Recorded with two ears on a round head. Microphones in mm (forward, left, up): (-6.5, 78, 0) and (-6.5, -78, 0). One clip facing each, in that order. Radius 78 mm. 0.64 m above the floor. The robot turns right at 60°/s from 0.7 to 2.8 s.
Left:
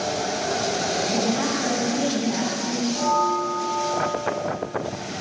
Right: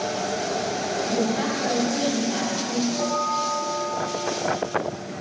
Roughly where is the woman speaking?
Behind.